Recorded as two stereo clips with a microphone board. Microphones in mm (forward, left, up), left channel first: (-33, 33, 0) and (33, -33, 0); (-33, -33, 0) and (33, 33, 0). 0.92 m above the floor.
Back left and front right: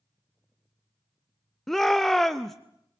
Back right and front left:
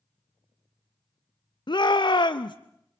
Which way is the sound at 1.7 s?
140° right.